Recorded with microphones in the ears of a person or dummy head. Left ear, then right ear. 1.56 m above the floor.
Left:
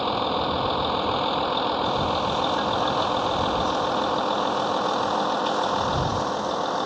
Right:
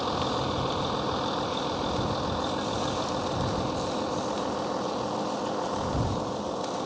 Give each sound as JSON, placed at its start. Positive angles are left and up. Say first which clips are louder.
{"t": 0.0, "sound": "a vehicle", "louder": "left 4 dB", "side_deg": 25}